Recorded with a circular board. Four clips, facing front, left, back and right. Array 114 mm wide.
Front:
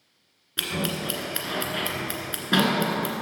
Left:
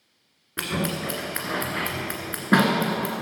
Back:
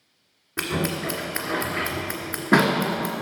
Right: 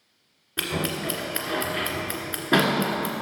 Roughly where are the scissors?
Behind left.